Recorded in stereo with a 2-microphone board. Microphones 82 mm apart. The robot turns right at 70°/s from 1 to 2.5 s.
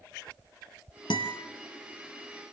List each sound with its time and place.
1.1 s a guitar: 75° left (ahead or behind), 3 m